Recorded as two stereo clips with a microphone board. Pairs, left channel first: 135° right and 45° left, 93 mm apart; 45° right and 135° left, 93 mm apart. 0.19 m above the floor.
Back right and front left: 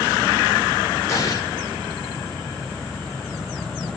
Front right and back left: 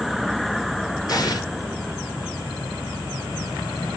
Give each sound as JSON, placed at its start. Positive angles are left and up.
{"t": 1.1, "sound": "an explosion", "azimuth_deg": -85, "distance_m": 2.0}